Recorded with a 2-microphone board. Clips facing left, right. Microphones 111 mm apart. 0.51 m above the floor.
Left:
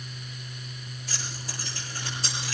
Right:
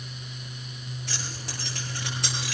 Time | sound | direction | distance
1.1 | keys jangling | 85° right | 8.5 m